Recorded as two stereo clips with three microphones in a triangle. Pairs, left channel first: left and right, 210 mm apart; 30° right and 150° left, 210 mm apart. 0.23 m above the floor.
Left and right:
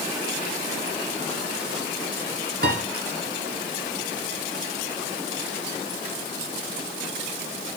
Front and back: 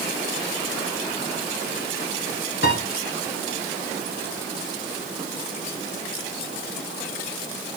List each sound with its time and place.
2.6 s a piano: 55° right, 1.5 m